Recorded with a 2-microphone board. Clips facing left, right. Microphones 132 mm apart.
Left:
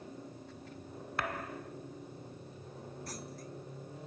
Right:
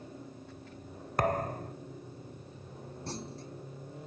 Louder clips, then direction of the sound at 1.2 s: Right 9 dB; 40° right (ahead or behind).